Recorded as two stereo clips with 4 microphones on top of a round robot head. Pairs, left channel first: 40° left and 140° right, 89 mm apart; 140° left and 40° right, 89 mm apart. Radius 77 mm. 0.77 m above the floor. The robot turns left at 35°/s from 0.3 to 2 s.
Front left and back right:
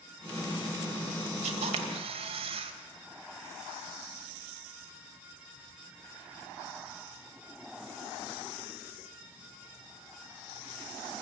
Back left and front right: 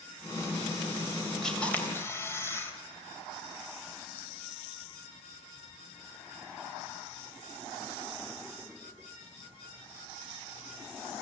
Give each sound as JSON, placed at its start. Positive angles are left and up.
{"t": 1.4, "sound": "a camera shutter", "azimuth_deg": -135, "distance_m": 2.5}